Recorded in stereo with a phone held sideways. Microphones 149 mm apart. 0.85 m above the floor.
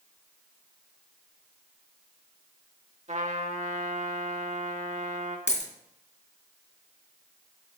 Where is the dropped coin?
50° left (ahead or behind), 2.5 m.